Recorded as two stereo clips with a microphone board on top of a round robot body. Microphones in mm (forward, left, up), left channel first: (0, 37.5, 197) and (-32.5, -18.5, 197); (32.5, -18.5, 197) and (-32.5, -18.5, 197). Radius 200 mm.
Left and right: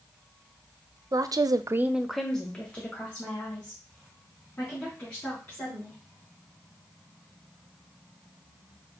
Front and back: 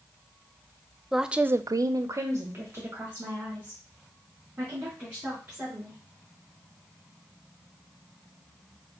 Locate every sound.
1.1 s a woman speaking: 90° right, 0.7 m; by 6.0 s 125° left, 4.5 m